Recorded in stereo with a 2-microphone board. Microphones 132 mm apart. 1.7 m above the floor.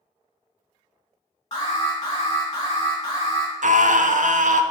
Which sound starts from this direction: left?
An alarm, at 1.5 s.